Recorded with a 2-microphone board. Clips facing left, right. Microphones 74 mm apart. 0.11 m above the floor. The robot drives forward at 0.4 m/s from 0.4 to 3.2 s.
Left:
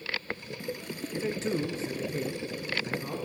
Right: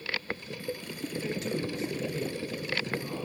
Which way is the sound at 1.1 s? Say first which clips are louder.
Left 3 dB; 30° left (ahead or behind).